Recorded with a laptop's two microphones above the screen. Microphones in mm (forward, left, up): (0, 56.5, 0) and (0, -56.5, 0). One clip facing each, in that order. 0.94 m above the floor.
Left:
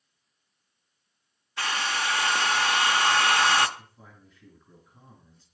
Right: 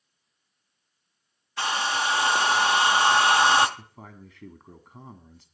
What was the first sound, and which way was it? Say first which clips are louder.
A hair dryer: right 3 dB; 25° right (ahead or behind).